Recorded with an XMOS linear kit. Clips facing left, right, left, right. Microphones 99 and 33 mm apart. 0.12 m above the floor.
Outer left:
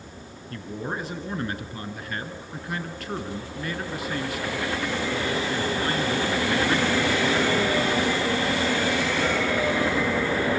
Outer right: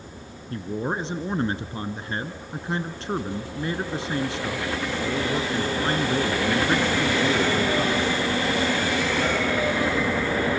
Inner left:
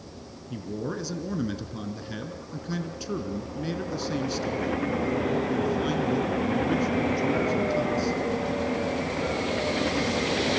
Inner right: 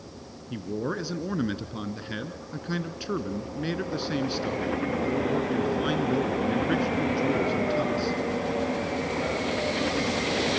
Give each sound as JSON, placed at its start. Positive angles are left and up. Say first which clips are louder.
{"t": 0.5, "sound": "a man speaking", "louder": "outer right 4 dB, inner right 2 dB", "side_deg": -25, "distance_m": 1.5}